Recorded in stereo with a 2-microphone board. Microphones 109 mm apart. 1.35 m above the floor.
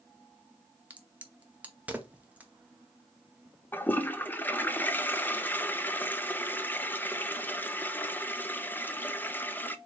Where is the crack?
15° right (ahead or behind), 0.9 m.